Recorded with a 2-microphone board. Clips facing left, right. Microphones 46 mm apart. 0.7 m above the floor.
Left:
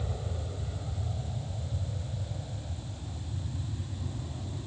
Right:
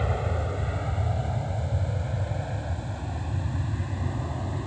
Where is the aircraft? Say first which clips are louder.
Right 10 dB; 70° right (ahead or behind); by 4.7 s 75° right (ahead or behind).